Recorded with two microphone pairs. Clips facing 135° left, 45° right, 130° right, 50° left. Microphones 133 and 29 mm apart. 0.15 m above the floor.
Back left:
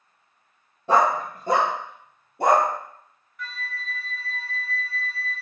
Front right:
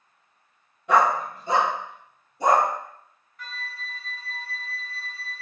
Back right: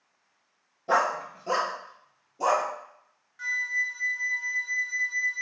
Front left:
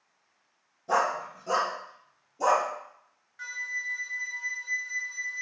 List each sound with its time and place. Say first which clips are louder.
0.9 s a dog barking: even, back right 2 dB; 175° right, 0.7 m; by 2.7 s 150° left, 1.6 m
3.4 s a flute: back left 3 dB, back right 6 dB; 30° right, 0.6 m